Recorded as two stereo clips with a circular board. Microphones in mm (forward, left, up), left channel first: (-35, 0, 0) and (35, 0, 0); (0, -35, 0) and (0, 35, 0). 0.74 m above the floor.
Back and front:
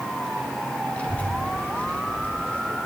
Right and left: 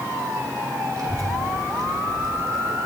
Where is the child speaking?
110° left, 2 m.